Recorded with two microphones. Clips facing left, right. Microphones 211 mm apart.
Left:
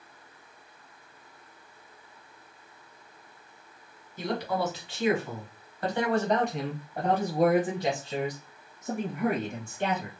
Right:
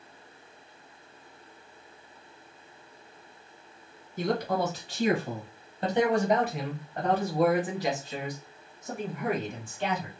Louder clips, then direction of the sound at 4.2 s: Right 2 dB; 55° right (ahead or behind).